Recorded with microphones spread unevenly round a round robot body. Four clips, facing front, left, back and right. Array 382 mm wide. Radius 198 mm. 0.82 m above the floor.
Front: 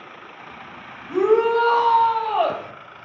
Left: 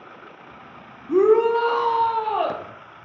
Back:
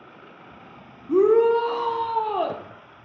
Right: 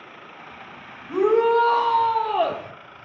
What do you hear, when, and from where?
1.1 s a shout: 155° left, 1.3 m; by 2.6 s 175° right, 1.7 m